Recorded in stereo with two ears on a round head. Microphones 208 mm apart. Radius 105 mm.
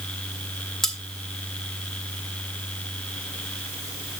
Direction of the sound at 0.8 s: Centre (ahead or behind).